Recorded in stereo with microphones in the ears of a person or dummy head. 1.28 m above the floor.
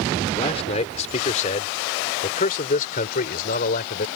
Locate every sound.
0.4 s a man speaking: 35° left (ahead or behind); by 4.0 s 50° left (ahead or behind)